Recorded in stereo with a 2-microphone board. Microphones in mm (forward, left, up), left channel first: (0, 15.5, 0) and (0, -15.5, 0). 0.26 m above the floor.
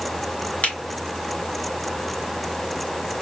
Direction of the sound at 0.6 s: 50° left (ahead or behind).